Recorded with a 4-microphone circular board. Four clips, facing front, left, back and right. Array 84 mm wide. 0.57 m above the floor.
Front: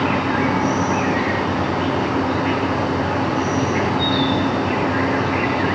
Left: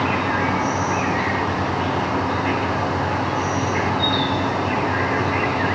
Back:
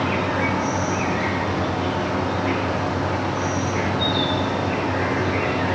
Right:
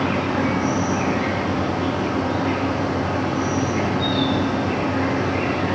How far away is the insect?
About 3 m.